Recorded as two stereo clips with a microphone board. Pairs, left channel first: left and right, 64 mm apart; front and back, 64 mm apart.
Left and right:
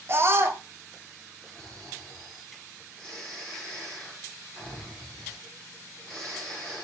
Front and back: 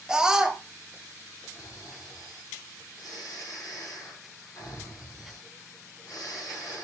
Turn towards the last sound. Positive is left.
turn(degrees=15)